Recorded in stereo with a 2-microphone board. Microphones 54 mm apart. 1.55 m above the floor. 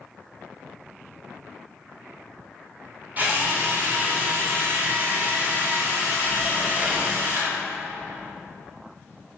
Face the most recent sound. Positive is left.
turn(degrees=-35)  # may be behind; listen again after turning